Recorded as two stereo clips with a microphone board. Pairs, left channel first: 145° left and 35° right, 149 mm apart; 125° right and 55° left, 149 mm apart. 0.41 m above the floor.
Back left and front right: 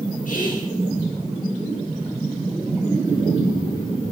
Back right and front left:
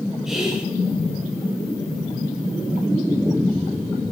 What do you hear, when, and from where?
0.2 s whispering: 140° left, 3.5 m